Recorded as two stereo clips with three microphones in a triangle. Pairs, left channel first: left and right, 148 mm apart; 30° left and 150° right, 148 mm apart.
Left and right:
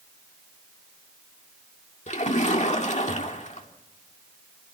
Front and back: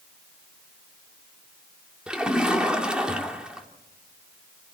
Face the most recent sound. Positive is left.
turn(degrees=125)